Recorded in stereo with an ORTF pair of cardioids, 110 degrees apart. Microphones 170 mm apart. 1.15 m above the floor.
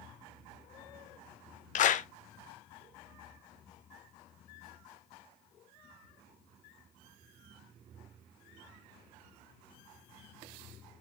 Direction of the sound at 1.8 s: 50° left.